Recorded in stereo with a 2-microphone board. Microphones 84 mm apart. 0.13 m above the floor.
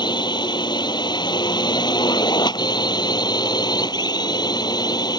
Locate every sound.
0.0 s a drone: 60° left (ahead or behind); by 5.2 s 55° left (ahead or behind)